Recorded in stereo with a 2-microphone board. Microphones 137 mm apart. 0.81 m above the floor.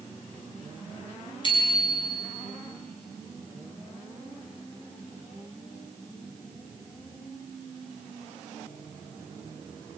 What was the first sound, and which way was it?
A bicycle bell, 35° left (ahead or behind).